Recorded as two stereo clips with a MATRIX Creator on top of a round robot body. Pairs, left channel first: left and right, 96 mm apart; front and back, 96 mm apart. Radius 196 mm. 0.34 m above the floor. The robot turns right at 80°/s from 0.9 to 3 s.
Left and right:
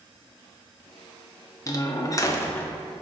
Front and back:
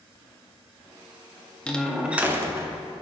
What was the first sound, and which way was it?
A door slam, 70° left.